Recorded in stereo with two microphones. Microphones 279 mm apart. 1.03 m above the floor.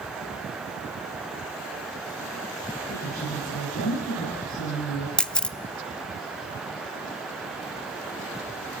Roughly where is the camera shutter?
Centre.